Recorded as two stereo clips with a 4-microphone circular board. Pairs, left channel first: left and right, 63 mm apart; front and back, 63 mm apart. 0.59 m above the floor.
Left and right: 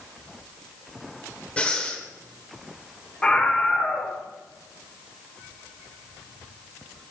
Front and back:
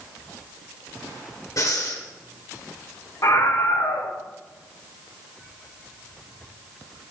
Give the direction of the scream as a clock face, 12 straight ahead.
12 o'clock.